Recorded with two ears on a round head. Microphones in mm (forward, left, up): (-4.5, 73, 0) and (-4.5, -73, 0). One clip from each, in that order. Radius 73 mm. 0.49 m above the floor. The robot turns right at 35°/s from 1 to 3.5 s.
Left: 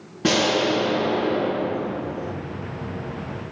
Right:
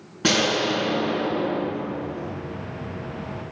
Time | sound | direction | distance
0.2 | an explosion | 35° right | 2.5 m